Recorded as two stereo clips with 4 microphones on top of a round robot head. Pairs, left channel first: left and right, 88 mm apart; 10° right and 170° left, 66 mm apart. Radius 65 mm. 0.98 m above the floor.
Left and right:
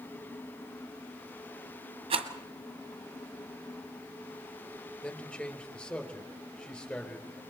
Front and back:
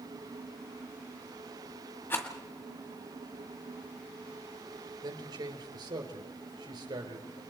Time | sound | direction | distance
2.1 | a rattle | 75° right | 1.6 m
5.0 | a man speaking | 165° left | 4 m